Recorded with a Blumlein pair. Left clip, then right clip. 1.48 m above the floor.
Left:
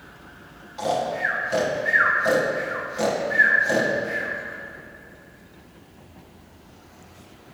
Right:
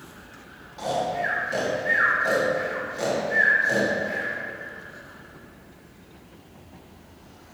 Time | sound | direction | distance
0.8 | snoring | 15° left | 1.4 m